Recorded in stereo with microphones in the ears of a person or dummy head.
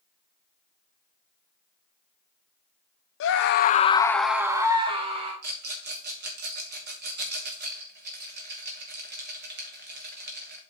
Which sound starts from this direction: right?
A rattle, at 5.4 s.